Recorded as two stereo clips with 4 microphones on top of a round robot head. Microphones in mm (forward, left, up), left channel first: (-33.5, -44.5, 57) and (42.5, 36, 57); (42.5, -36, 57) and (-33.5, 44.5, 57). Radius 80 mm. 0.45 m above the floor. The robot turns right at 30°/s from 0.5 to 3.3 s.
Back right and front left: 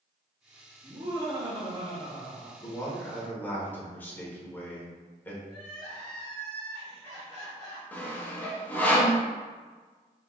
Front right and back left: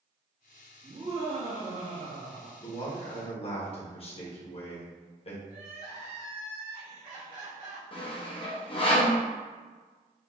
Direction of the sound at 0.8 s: 85° left.